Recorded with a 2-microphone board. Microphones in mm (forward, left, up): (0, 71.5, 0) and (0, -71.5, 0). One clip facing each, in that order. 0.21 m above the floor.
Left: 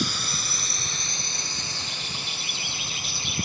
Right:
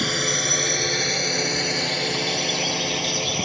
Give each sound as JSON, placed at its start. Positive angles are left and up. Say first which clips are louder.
{"t": 0.0, "sound": "a drone", "louder": "right 6 dB", "side_deg": -60}